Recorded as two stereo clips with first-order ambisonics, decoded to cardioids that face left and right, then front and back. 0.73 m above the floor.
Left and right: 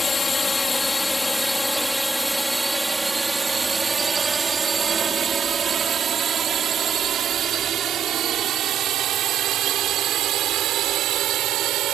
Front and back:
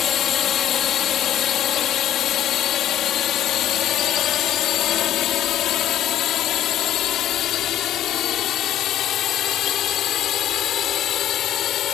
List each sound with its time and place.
0.0 s a drone: 30° left; by 12.0 s 50° right